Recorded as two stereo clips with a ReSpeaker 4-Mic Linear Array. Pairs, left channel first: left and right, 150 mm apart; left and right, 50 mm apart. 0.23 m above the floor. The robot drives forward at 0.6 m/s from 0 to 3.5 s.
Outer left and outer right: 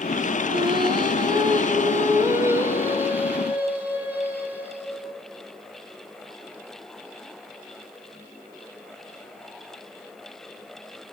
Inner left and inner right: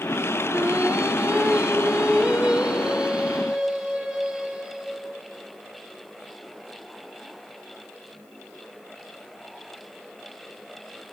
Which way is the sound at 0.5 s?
30° right (ahead or behind).